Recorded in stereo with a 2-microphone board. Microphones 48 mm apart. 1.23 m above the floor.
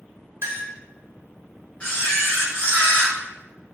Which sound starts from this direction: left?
A camera shutter, at 1.8 s.